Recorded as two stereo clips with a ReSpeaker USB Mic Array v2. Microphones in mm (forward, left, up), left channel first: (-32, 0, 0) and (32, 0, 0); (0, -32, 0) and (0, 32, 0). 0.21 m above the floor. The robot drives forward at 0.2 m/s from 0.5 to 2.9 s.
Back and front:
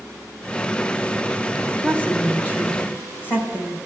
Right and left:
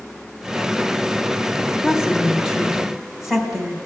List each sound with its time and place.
1.8 s a woman speaking: 160° left, 1.0 m; by 3.8 s 170° left, 1.1 m